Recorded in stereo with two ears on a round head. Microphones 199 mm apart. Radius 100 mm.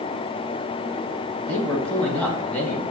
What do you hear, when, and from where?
1.5 s a man speaking: 5° left (ahead or behind), 1.5 m